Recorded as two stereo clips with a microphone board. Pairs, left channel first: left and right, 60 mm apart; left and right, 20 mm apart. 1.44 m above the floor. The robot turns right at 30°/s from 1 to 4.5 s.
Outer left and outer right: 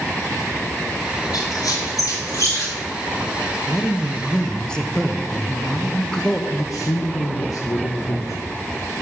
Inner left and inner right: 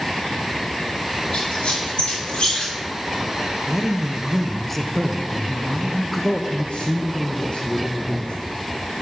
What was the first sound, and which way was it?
A squeak, 85° left.